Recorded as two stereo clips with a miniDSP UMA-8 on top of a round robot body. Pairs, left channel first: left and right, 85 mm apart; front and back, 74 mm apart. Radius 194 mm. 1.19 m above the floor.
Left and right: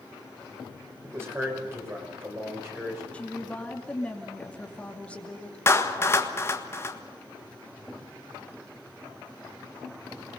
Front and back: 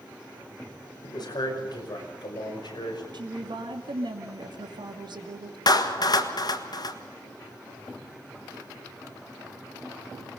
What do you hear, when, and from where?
1.0 s a man speaking: 30° right, 5.5 m; by 3.0 s 25° right, 7 m
3.1 s a woman speaking: 165° left, 2.5 m
5.7 s a clap: 30° left, 1.7 m